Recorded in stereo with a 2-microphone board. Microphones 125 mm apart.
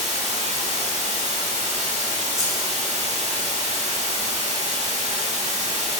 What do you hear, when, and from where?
0.0 s running water: 65° right (ahead or behind), 0.9 m
2.4 s scissors: 25° right (ahead or behind), 1.4 m